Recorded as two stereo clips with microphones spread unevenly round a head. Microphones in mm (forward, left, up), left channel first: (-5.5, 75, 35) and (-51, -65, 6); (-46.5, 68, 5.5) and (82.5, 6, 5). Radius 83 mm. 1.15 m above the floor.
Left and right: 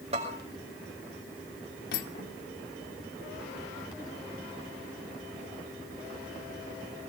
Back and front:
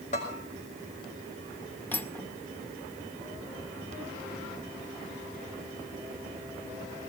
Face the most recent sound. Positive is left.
turn(degrees=75)